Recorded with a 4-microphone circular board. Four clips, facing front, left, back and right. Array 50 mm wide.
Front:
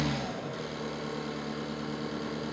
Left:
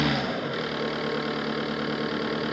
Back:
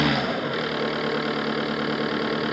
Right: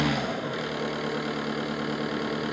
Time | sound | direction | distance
0.0 | an engine running | 175° left | 1.0 m